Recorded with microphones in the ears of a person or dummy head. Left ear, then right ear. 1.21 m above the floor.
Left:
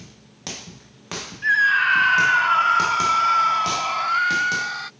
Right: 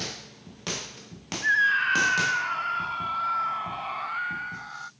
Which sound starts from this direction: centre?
A scream, at 1.4 s.